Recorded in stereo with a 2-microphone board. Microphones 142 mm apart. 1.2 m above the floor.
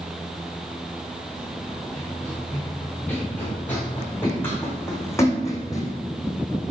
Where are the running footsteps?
5° left (ahead or behind), 5.5 m; by 5.9 s 25° left (ahead or behind), 2.5 m.